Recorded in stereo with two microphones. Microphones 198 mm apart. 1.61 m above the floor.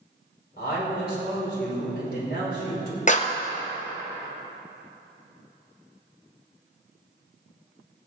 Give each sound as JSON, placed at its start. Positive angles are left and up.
{"t": 0.6, "sound": "a man speaking", "side_deg": 50, "distance_m": 5.0}
{"t": 3.1, "sound": "a clap", "side_deg": 40, "distance_m": 0.8}